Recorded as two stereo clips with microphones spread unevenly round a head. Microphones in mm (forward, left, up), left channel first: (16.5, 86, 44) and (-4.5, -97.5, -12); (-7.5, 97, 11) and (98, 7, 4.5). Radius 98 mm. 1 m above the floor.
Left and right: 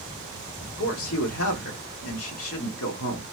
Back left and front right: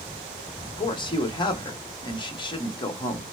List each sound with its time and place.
0.6 s a man speaking: 85° left, 1.6 m